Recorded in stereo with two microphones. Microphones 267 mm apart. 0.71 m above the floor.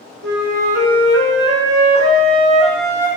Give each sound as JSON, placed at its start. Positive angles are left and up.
{"t": 0.2, "sound": "a flute", "side_deg": -40, "distance_m": 1.1}